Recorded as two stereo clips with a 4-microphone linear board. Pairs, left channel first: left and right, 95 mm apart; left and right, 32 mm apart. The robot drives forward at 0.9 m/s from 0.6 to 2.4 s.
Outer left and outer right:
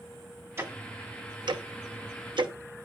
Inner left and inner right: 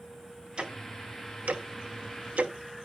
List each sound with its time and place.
0.6 s ticking: 30° right (ahead or behind), 1.4 m; by 2.5 s 60° right (ahead or behind), 0.8 m